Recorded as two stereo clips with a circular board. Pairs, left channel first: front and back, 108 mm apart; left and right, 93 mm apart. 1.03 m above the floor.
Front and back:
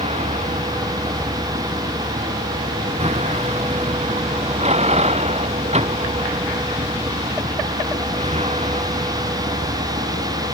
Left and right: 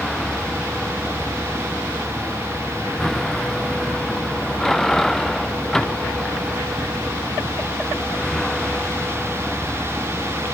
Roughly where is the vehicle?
Behind.